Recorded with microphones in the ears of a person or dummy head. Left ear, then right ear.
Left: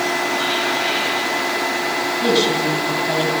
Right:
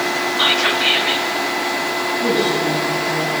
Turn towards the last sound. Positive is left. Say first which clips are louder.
# left 2 dB
turn(degrees=40)  # may be behind; listen again after turning